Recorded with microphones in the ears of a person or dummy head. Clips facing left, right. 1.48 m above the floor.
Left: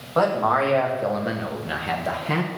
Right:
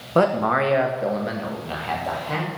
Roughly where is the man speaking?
Right.